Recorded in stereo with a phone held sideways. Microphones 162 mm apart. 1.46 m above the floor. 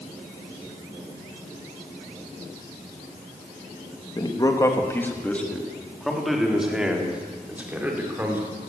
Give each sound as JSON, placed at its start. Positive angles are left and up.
{"t": 4.2, "sound": "a man speaking", "side_deg": 25, "distance_m": 2.0}